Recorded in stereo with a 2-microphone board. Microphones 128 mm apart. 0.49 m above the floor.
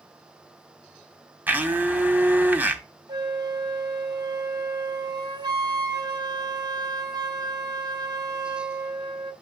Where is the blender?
15° right (ahead or behind), 1.0 m.